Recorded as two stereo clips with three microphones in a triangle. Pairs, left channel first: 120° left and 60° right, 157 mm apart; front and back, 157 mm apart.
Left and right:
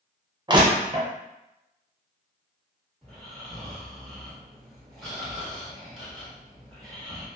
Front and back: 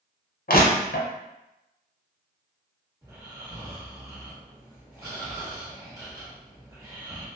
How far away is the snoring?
About 1.2 m.